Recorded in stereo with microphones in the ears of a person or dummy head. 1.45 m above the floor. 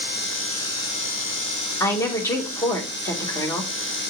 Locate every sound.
1.8 s a woman speaking: 15° left (ahead or behind), 1.4 m